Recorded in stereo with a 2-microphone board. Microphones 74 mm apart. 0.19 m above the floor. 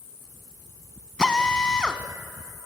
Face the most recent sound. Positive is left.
turn(degrees=15)  # may be behind; listen again after turning